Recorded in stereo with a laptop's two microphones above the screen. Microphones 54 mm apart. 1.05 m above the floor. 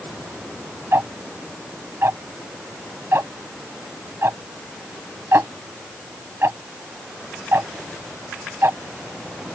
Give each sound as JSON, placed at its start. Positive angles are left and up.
{"t": 0.9, "sound": "ticking", "side_deg": -55}